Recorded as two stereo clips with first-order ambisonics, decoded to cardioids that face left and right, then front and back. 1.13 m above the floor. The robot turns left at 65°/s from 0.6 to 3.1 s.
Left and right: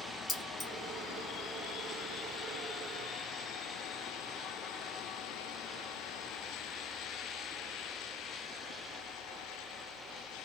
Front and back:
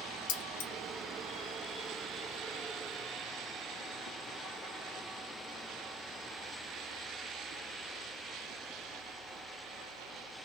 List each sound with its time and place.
0.3 s keys jangling: 15° left, 1.1 m; by 0.7 s 10° left, 1.1 m